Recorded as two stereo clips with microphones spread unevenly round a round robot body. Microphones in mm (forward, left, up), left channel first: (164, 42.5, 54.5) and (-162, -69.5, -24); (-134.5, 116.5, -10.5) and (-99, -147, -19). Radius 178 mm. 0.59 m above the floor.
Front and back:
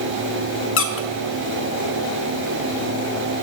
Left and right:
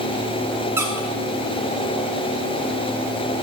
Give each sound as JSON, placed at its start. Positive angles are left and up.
{"t": 0.8, "sound": "a squeak", "azimuth_deg": -15, "distance_m": 0.6}